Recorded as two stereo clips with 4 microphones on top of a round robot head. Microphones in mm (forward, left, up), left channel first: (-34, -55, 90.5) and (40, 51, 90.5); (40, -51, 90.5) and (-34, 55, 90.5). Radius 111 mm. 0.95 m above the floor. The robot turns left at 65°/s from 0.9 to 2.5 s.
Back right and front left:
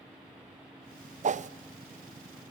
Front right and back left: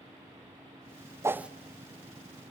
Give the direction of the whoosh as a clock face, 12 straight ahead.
10 o'clock.